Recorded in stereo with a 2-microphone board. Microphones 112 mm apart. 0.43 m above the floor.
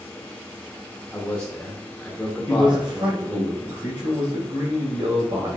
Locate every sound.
1.1 s a man speaking: 10° left (ahead or behind), 0.8 m
2.5 s a man speaking: 45° right (ahead or behind), 2 m